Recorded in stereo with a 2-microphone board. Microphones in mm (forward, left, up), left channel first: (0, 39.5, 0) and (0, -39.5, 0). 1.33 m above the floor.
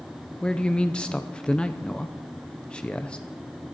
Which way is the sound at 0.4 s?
10° left (ahead or behind).